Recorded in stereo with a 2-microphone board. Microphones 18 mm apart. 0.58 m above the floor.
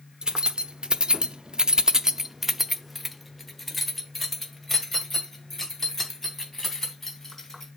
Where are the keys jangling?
40° right (ahead or behind), 1.1 m; by 7.7 s 15° left (ahead or behind), 4 m.